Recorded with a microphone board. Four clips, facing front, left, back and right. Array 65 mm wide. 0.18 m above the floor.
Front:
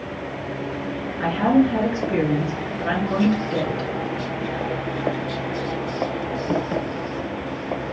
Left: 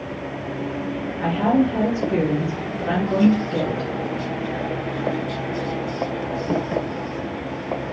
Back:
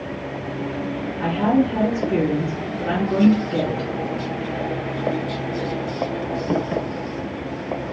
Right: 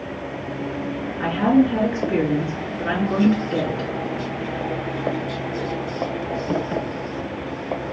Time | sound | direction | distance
1.2 | a woman speaking | 50° right | 2.5 m